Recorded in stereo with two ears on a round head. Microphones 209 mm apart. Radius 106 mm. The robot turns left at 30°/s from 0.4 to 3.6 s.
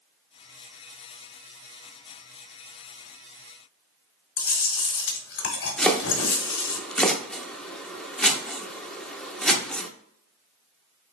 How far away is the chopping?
About 0.7 m.